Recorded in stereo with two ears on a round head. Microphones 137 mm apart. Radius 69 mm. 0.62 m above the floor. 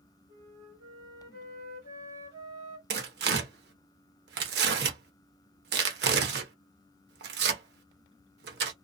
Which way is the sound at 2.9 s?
70° right (ahead or behind).